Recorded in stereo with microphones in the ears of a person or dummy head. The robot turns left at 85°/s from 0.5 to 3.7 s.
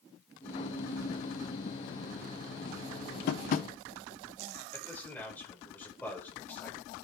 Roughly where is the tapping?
Left.